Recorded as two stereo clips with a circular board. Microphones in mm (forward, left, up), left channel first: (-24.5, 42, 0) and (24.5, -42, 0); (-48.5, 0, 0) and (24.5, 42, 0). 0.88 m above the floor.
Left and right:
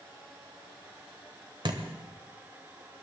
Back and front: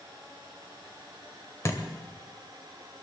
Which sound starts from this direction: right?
A thud, at 1.6 s.